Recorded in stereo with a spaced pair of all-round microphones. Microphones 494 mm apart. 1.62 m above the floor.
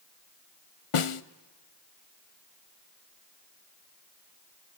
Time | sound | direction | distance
0.9 | a snare drum | 80° left | 0.7 m